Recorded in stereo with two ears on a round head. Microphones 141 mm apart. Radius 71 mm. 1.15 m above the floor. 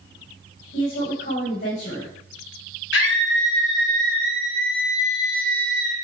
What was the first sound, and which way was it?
A woman speaking, 75° left (ahead or behind).